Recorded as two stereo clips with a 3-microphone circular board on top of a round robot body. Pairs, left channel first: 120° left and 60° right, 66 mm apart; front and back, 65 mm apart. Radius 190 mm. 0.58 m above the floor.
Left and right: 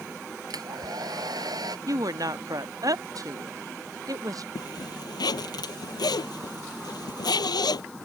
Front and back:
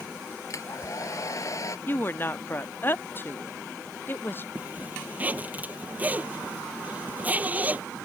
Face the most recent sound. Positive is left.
turn(degrees=115)